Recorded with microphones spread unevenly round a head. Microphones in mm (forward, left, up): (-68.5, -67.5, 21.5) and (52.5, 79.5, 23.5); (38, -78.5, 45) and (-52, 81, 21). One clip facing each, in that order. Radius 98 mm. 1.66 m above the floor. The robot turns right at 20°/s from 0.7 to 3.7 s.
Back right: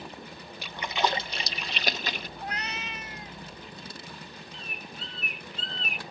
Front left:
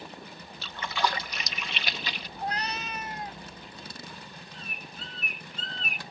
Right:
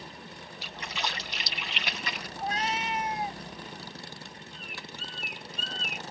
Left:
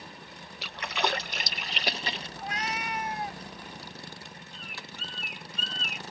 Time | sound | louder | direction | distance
0.6 | a splash | back right 1 dB, left 6 dB | 155° left | ?
2.4 | a cat meowing | front left 4 dB, right 6 dB | 10° right | ?
4.5 | a bird | back right 1 dB, right 1 dB | 95° left | ?